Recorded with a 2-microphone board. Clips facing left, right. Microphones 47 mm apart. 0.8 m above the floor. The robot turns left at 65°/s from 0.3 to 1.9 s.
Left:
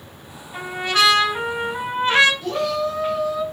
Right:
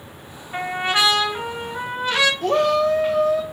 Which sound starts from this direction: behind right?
A trumpet, at 0.5 s.